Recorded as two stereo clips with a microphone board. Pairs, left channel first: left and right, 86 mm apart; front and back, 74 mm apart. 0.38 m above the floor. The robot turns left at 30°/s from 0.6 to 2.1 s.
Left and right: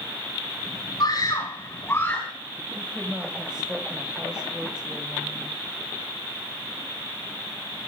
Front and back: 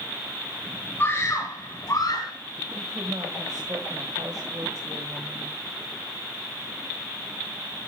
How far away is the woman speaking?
About 2.0 m.